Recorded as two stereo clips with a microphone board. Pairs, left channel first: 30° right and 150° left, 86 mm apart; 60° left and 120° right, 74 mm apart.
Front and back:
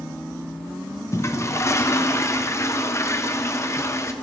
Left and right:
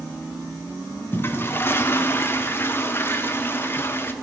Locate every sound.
1.1 s a toilet flushing: 10° left, 0.6 m